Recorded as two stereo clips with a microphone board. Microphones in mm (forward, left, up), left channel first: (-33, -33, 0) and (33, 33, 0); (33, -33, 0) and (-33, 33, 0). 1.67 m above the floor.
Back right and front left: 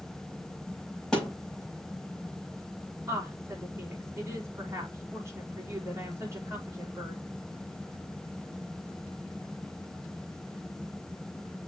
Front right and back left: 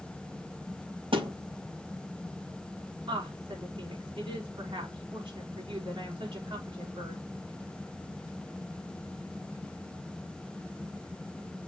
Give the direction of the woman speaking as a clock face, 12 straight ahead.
9 o'clock.